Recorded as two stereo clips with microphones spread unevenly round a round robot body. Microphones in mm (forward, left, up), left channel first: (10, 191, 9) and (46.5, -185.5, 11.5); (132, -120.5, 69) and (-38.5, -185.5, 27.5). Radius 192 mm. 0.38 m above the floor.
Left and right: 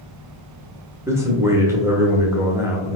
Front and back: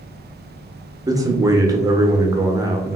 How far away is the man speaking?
About 0.8 m.